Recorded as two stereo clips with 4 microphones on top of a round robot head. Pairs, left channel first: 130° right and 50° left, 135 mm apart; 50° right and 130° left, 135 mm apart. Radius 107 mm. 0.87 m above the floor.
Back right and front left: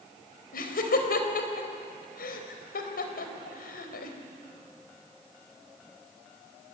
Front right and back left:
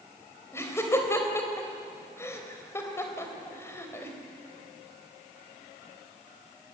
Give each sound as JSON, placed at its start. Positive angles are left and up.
{"t": 0.5, "sound": "laughter", "azimuth_deg": -125, "distance_m": 4.0}